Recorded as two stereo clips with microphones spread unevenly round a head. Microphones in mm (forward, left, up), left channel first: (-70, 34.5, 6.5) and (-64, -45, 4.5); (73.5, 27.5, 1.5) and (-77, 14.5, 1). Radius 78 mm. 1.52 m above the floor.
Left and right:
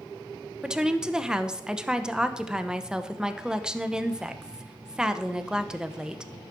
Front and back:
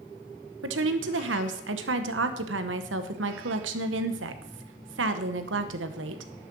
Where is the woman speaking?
165° right, 1.2 m.